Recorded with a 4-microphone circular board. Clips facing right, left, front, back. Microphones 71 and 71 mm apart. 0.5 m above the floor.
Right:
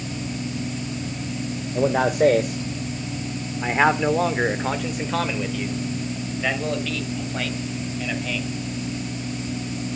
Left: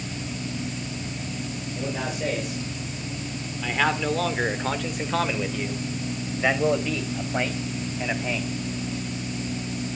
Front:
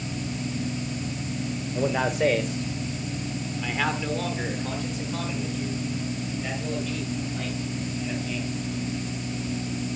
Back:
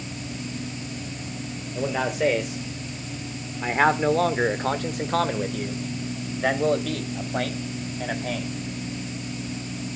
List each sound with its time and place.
1.8 s a man speaking: 85° right, 1.6 m; by 8.5 s 150° left, 3 m